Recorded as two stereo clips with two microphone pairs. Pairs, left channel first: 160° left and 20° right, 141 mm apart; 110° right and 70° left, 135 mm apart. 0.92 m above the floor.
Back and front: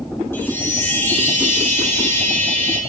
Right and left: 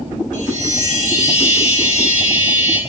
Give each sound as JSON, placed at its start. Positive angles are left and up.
{"t": 0.3, "sound": "a chime", "azimuth_deg": -130, "distance_m": 2.5}